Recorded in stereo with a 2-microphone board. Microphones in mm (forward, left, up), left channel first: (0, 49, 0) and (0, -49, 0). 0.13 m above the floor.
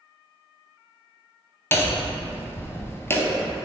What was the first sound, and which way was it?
Hammering, 25° left (ahead or behind).